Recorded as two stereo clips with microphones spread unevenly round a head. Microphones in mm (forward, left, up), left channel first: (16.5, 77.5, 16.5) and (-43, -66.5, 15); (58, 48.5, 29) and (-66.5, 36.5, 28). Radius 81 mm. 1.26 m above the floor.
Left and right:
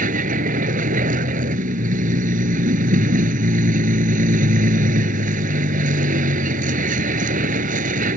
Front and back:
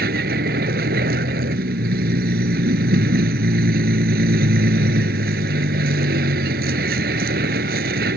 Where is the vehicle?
155° right.